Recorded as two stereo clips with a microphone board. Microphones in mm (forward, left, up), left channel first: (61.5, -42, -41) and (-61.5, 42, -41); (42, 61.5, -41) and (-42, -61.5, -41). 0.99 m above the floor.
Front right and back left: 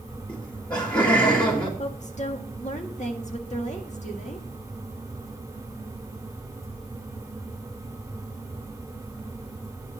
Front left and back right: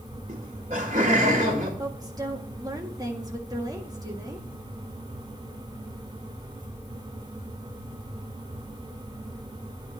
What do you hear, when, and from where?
0.3 s laughter: 95° right, 1.9 m
1.8 s a woman speaking: 65° right, 1.8 m